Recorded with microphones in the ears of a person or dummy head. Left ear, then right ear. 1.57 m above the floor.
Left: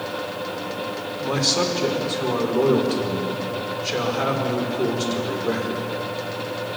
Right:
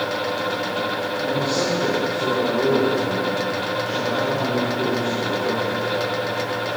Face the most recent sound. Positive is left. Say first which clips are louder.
# left 3 dB
turn(degrees=70)  # may be behind; listen again after turning